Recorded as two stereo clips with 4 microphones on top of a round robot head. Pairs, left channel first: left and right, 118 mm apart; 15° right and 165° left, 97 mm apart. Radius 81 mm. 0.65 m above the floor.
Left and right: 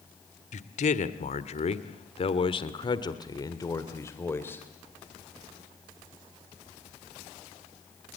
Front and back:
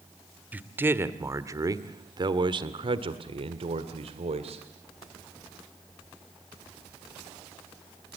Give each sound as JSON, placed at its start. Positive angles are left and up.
{"t": 0.5, "sound": "a man speaking", "azimuth_deg": 95, "distance_m": 1.8}